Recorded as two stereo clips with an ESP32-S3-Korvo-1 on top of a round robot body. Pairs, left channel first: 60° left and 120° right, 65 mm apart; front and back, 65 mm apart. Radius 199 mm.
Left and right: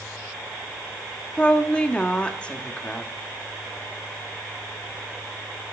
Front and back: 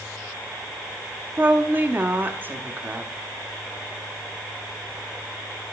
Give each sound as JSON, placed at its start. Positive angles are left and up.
{"t": 1.4, "sound": "a woman speaking", "azimuth_deg": 130, "distance_m": 1.5}